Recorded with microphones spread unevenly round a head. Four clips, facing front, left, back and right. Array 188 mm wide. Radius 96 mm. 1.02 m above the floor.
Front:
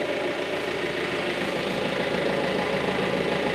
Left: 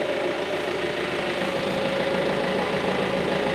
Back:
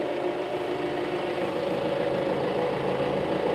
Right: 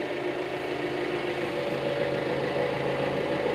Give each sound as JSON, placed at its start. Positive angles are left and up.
{"t": 0.0, "sound": "an engine running", "azimuth_deg": 45, "distance_m": 1.0}